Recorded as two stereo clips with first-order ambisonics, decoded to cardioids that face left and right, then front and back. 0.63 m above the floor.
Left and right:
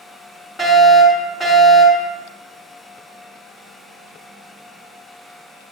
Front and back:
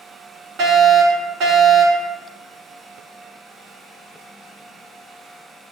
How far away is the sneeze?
I don't hear a sneeze.